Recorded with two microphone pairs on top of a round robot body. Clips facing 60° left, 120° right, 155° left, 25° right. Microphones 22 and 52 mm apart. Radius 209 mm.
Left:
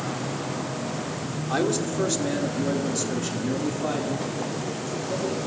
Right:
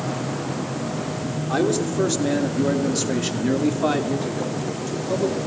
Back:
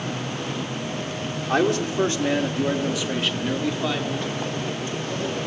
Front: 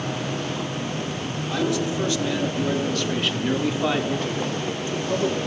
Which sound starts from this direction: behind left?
A man speaking, at 1.5 s.